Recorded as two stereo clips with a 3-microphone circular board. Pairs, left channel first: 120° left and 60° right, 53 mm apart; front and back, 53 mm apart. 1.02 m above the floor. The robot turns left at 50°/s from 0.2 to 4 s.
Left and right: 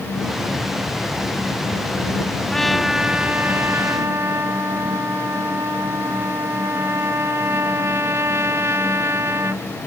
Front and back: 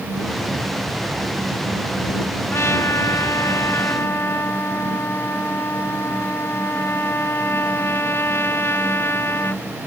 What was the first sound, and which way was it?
A trumpet, 40° left.